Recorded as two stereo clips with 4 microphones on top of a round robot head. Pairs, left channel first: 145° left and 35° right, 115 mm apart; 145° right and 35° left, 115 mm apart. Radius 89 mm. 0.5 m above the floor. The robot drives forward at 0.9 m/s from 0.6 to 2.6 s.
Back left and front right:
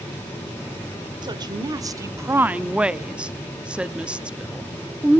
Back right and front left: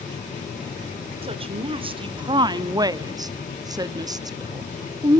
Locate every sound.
1.2 s a woman speaking: 10° left, 1.8 m; by 5.2 s 35° left, 0.8 m